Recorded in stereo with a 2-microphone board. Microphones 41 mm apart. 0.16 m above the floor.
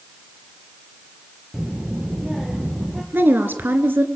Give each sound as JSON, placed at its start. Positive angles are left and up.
{"t": 1.5, "sound": "a child speaking", "side_deg": -5, "distance_m": 1.8}
{"t": 3.1, "sound": "a woman speaking", "side_deg": -60, "distance_m": 2.5}